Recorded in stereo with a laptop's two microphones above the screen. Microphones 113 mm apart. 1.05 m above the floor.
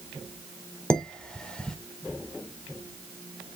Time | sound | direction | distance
0.9 | dishes clattering | 10° left (ahead or behind) | 2.5 m